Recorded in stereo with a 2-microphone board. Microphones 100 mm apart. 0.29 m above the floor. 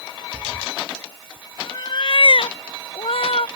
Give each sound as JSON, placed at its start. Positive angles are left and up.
{"t": 0.3, "sound": "a cat meowing", "side_deg": -35}